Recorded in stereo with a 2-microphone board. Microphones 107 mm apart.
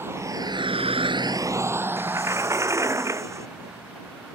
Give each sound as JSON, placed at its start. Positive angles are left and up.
{"t": 0.0, "sound": "a vehicle", "side_deg": -20}
{"t": 2.0, "sound": "a sliding door", "side_deg": -25}